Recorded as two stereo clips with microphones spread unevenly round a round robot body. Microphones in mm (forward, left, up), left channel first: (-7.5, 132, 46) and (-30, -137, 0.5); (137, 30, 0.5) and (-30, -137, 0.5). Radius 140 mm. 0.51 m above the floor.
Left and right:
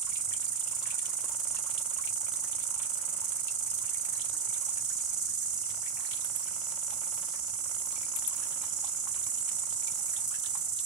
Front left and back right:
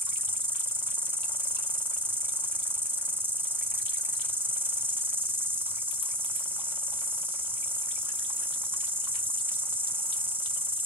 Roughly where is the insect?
Ahead right.